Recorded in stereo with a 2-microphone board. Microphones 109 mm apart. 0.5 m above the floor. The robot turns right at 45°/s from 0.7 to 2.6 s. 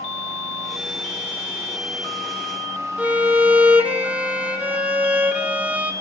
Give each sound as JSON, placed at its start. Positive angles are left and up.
{"t": 3.0, "sound": "a violin", "side_deg": -10, "distance_m": 1.6}